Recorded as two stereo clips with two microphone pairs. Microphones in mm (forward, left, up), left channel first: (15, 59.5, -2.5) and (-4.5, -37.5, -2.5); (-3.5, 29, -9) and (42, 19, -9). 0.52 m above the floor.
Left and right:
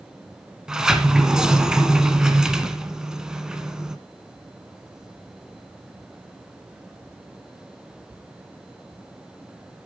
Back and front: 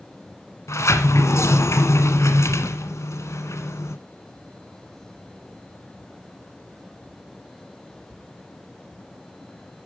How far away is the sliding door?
About 1.4 m.